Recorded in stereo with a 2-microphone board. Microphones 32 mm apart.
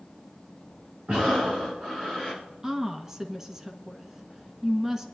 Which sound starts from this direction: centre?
A woman speaking, at 2.6 s.